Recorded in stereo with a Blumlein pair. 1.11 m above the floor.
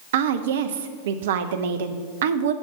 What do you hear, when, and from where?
0.1 s a woman speaking: 55° right, 0.7 m